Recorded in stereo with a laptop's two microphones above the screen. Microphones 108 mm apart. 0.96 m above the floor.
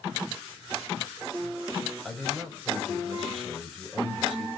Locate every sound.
2.0 s a man speaking: 5° right (ahead or behind), 6 m